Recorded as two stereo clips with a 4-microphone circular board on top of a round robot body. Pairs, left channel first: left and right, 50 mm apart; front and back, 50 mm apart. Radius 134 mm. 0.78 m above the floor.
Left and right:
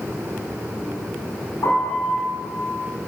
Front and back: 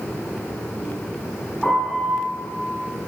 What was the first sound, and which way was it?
A piano, 75° left.